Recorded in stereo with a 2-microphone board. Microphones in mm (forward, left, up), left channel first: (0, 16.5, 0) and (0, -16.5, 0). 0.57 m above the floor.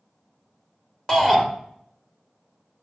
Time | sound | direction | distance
1.1 | a shout | 15° left (ahead or behind) | 1.9 m